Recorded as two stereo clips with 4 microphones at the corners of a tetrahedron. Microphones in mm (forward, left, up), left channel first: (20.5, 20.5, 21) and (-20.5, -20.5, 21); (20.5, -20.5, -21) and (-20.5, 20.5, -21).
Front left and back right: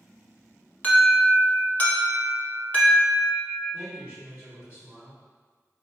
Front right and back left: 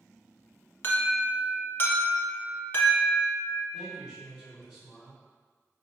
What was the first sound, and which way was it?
An alarm, 10° right.